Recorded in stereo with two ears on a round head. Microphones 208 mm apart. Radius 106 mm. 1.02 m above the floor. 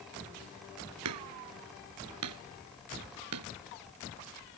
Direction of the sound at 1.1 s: 85° right.